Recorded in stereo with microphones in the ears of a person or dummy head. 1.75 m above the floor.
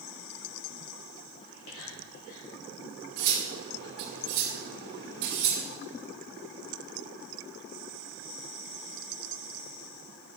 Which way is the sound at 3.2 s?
60° right (ahead or behind).